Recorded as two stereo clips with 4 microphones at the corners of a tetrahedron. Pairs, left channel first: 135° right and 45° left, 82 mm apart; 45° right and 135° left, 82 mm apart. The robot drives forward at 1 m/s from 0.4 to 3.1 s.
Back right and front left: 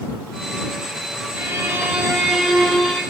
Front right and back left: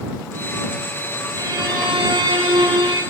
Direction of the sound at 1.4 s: 100° left.